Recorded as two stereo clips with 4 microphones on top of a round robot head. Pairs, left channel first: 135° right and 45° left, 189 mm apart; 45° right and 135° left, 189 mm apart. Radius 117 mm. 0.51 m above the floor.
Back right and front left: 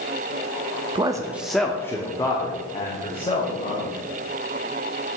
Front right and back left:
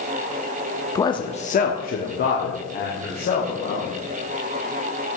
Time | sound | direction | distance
0.9 | a man speaking | 15° left | 0.7 m